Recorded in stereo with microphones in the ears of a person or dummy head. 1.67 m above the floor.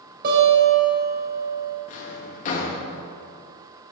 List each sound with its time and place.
0.2 s a guitar: 55° right (ahead or behind), 3.5 m
1.9 s a drawer: 40° left (ahead or behind), 1.5 m